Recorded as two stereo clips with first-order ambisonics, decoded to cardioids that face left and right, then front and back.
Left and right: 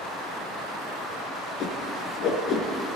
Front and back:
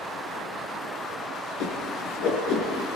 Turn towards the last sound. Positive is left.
turn(degrees=35)